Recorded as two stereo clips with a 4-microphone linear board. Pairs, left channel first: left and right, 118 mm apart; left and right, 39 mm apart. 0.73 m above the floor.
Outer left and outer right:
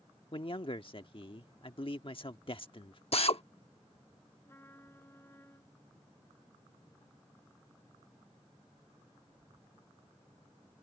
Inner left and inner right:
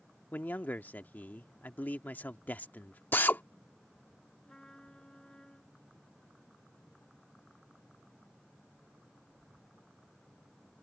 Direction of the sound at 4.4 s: 20° left (ahead or behind).